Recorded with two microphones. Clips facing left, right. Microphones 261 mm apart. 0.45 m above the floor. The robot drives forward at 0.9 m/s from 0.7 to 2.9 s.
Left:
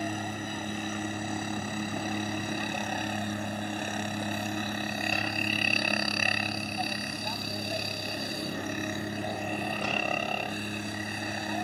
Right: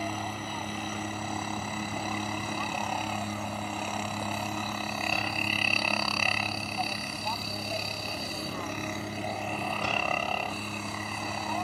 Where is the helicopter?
15° left (ahead or behind).